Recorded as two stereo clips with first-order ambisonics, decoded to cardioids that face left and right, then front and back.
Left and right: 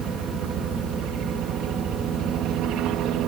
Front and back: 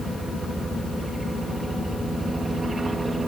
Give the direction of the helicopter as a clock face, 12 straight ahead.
4 o'clock.